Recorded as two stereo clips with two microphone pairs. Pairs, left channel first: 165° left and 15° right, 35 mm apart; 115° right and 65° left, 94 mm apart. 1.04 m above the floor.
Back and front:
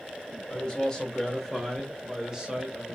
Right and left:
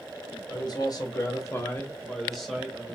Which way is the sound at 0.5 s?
135° right.